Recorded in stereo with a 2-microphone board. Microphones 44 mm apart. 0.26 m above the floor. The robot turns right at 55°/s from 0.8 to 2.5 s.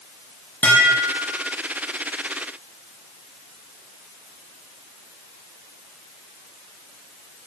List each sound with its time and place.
0.6 s dishes clattering: 40° left, 6.5 m; by 1.4 s 70° left, 6.5 m